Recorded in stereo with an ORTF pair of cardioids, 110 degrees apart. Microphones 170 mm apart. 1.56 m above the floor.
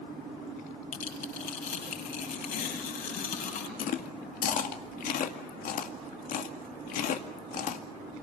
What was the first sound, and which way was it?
Tearing paper, 60° left.